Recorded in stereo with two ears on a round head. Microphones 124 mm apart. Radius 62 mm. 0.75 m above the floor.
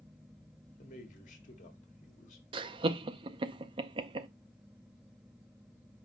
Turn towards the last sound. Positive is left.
turn(degrees=-35)  # may be behind; listen again after turning